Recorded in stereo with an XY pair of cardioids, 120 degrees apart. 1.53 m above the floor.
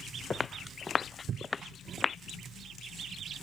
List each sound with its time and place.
0.3 s footsteps: 25° left